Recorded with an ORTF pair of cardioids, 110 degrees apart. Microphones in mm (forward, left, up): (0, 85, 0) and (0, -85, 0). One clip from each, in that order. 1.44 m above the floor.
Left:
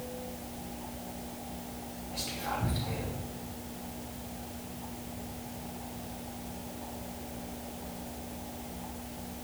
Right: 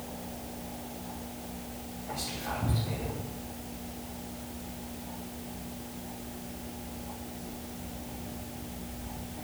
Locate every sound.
2.1 s whispering: 30° left, 2.5 m